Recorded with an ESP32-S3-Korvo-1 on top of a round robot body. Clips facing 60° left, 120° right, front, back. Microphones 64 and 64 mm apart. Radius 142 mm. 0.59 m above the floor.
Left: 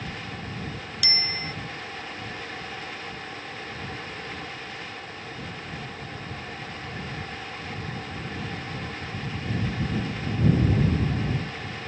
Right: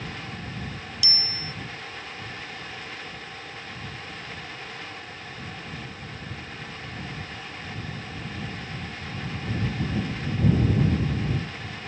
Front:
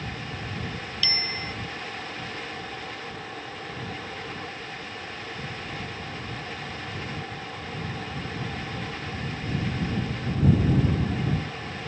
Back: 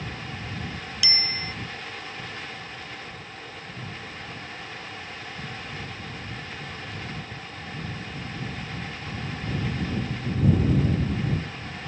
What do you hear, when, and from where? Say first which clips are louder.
1.0 s a bicycle bell: left 6 dB, back 1 dB; 100° left